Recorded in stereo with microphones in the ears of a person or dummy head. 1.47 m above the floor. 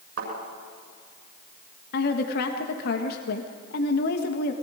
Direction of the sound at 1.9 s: 65° left (ahead or behind).